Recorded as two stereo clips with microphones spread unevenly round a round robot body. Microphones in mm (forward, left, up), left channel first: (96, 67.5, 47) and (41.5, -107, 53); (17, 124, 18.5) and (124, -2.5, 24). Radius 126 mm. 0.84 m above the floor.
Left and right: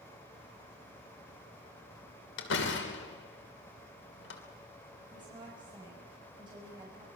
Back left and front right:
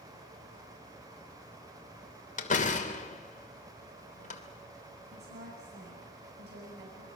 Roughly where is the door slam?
Left.